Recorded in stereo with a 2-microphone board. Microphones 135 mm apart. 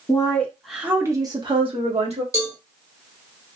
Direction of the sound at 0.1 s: 30° left (ahead or behind).